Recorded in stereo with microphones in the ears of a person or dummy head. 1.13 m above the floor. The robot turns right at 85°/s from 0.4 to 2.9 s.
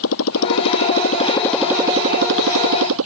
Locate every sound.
0.0 s a motorcycle: 75° left (ahead or behind); by 3.1 s 80° right